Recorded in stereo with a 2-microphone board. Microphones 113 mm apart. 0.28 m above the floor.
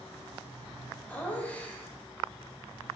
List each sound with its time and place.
1.1 s laughter: 15° left (ahead or behind), 1.5 m